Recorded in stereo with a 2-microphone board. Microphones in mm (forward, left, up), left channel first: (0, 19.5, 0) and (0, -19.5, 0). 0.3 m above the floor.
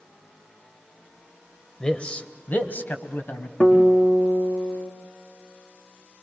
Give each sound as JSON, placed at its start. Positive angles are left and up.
{"t": 1.8, "sound": "a man speaking", "side_deg": 15, "distance_m": 0.9}
{"t": 3.6, "sound": "a guitar", "side_deg": 35, "distance_m": 4.5}